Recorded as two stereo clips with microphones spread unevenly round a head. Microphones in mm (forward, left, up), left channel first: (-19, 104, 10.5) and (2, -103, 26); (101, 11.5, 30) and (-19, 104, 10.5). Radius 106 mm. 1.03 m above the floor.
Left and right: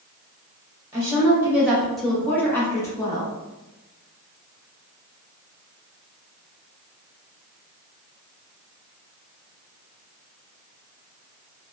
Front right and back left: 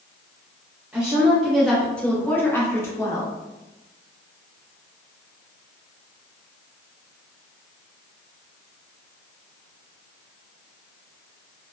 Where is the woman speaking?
155° right, 0.8 m; by 3.3 s 35° left, 1.0 m.